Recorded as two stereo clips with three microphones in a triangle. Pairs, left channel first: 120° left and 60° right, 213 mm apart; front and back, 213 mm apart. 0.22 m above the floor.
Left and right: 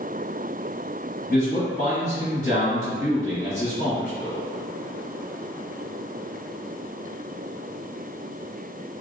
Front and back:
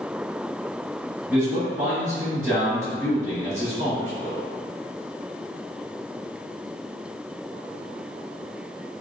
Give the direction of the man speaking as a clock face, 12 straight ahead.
7 o'clock.